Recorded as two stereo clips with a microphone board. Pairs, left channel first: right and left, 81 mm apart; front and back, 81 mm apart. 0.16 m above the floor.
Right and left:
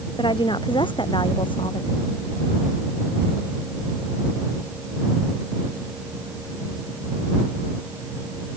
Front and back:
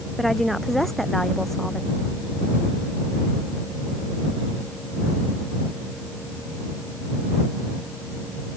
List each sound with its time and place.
0.2 s a woman speaking: 90° right; by 1.9 s 85° right